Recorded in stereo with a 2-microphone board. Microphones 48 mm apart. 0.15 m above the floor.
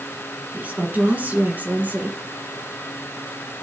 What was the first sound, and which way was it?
A woman speaking, 35° right (ahead or behind).